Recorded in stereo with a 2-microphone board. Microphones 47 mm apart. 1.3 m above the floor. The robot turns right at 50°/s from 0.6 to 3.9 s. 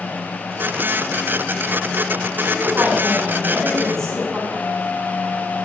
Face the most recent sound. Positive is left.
turn(degrees=70)  # may be behind; listen again after turning